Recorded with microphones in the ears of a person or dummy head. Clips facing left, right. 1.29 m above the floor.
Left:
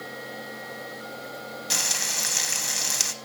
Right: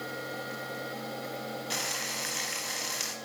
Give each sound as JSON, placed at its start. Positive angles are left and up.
{"t": 1.7, "sound": "frying", "side_deg": 55, "distance_m": 0.6}